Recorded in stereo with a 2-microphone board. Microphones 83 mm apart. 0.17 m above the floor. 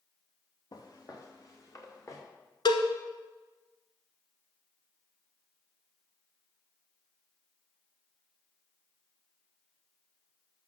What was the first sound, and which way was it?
Footsteps, 50° left (ahead or behind).